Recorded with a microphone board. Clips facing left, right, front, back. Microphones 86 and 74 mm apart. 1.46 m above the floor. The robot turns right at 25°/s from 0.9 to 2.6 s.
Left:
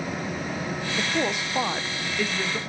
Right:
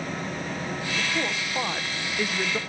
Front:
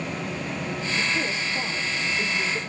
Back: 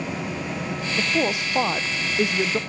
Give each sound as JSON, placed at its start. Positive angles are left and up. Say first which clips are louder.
{"t": 1.0, "sound": "a woman speaking", "louder": "left 4 dB, back 6 dB", "azimuth_deg": 155, "distance_m": 0.7}